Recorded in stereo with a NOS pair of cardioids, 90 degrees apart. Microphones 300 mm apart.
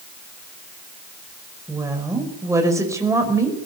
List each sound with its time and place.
1.7 s a woman speaking: 10° right, 5 m